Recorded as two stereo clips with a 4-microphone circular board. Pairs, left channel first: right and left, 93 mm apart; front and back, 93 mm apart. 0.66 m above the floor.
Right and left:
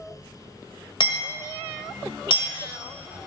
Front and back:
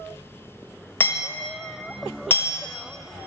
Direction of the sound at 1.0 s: 70° right.